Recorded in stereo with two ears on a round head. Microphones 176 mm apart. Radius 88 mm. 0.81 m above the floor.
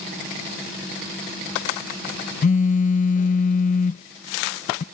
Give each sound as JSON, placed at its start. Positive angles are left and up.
{"t": 2.4, "sound": "a phone buzzing", "side_deg": 40}